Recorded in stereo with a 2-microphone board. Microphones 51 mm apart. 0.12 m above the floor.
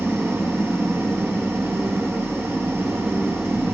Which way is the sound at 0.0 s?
60° right (ahead or behind).